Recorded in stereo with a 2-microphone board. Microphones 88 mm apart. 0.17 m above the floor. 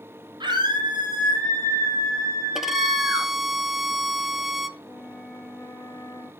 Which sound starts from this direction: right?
A scream, at 0.4 s.